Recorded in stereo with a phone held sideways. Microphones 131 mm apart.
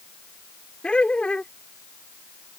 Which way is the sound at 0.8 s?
10° left (ahead or behind).